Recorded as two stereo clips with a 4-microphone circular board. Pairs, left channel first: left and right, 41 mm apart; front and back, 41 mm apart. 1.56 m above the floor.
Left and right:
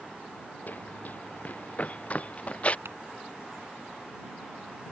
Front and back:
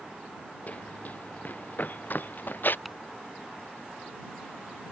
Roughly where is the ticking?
Right.